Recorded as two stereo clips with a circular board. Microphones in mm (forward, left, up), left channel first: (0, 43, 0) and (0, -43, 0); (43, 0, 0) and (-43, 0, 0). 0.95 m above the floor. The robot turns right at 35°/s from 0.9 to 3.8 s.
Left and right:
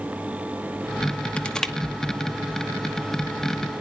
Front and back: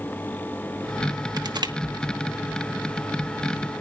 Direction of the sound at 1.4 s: 165° left.